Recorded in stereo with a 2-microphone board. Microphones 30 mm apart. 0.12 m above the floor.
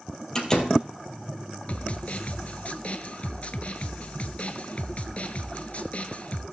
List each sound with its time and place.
0.3 s a door slam: 20° left (ahead or behind), 2.5 m
1.7 s a snare drum: 50° left (ahead or behind), 0.7 m